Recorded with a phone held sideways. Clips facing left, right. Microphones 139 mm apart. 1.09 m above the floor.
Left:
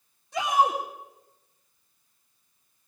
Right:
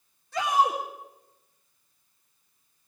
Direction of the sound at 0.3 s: 15° left (ahead or behind).